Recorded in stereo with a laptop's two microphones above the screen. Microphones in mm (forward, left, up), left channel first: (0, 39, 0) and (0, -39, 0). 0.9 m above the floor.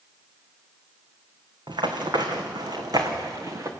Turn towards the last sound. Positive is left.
turn(degrees=-45)  # may be behind; listen again after turning